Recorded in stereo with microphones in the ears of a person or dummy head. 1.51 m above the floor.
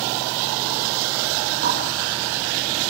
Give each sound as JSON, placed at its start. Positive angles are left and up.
{"t": 1.6, "sound": "a bird", "side_deg": -40, "distance_m": 1.2}